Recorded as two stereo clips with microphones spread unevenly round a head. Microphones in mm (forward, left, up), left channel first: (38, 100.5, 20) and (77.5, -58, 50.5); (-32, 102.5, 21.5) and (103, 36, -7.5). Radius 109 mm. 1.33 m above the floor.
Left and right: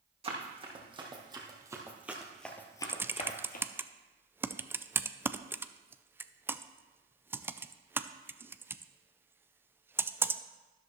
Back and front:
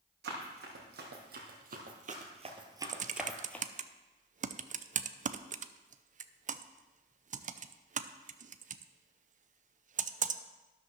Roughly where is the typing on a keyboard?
Ahead.